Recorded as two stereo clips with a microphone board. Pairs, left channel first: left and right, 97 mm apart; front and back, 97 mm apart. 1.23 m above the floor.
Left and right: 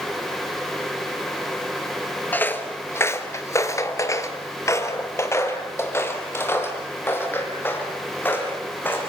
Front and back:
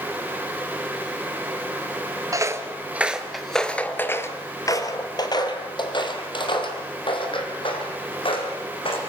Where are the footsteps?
150° left, 1.5 m; by 9.0 s 20° left, 5 m.